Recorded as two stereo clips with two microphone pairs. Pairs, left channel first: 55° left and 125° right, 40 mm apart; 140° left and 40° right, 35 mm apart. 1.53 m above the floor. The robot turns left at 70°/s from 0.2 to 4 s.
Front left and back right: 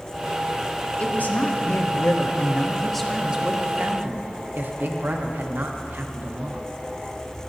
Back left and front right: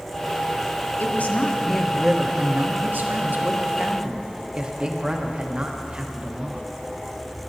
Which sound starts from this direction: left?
A woman speaking, at 1.0 s.